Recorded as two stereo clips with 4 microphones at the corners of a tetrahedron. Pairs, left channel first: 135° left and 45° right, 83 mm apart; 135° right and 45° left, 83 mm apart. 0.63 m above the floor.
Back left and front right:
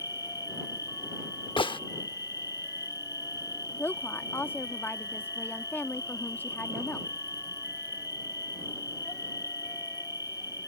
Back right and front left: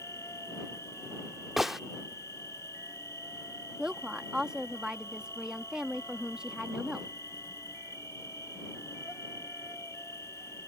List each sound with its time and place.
0.0 s an insect: 170° left
1.6 s a gunshot: 130° left
3.8 s a woman speaking: 115° left